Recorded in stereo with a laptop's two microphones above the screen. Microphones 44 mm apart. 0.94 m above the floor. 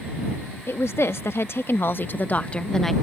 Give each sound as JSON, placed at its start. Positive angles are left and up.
{"t": 0.7, "sound": "a woman speaking", "side_deg": 75}